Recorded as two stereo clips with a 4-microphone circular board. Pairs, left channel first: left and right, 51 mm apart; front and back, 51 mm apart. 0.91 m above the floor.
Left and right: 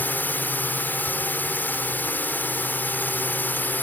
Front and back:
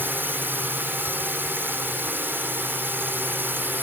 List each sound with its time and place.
0.0 s a drone: 140° left